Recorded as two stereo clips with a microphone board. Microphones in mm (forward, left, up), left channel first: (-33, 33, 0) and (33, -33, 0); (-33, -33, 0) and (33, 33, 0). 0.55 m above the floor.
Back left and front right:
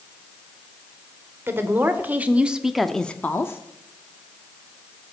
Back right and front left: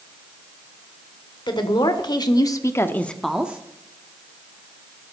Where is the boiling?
No boiling in this recording.